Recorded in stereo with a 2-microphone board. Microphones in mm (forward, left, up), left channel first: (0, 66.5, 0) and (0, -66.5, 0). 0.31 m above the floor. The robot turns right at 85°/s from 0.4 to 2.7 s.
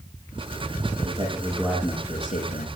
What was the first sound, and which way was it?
A man speaking, 55° right.